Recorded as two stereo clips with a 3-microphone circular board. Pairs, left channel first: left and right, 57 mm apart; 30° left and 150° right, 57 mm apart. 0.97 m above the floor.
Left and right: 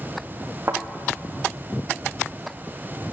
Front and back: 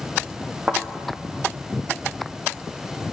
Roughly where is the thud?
Right.